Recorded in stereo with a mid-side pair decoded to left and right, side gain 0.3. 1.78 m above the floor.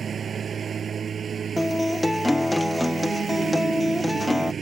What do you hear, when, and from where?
0.0 s a lawn mower: 70° right
1.6 s a guitar: 10° left